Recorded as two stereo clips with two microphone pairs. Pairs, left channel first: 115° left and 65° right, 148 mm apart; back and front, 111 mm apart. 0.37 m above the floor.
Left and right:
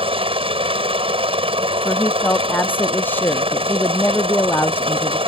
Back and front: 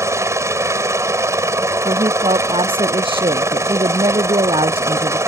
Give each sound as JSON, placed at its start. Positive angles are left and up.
{"t": 0.0, "sound": "a helicopter", "azimuth_deg": -45}
{"t": 1.9, "sound": "a woman speaking", "azimuth_deg": 40}